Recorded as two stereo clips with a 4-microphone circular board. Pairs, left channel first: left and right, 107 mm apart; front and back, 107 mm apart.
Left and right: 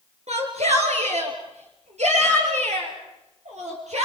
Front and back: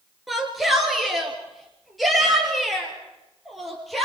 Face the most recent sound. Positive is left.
turn(degrees=-90)